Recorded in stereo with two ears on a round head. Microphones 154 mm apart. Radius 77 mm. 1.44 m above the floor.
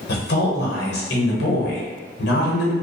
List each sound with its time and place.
0.1 s a woman speaking: 60° left (ahead or behind), 0.9 m